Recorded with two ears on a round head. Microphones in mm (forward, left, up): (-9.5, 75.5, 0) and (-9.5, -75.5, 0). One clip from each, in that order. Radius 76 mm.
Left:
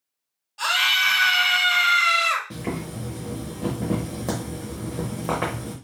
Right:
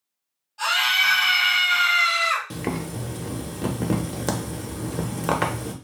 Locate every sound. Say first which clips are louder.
0.6 s a scream: even; 20° left (ahead or behind), 1.3 m
2.5 s boiling: right 2 dB; 45° right (ahead or behind), 0.7 m